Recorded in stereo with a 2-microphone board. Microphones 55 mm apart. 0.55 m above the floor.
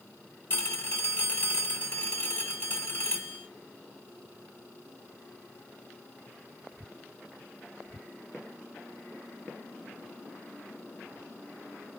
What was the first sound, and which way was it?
A phone ringing, 40° left (ahead or behind).